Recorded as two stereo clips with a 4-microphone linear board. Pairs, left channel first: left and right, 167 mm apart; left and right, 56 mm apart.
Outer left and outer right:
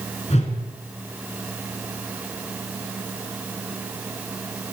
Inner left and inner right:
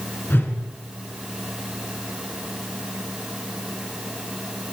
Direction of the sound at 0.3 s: 45° left (ahead or behind).